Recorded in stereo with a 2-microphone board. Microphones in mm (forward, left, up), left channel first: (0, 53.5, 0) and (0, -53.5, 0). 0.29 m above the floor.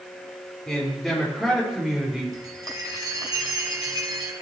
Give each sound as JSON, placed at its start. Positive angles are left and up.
{"t": 0.7, "sound": "a man speaking", "side_deg": 5, "distance_m": 6.0}
{"t": 2.3, "sound": "a chime", "side_deg": -40, "distance_m": 2.0}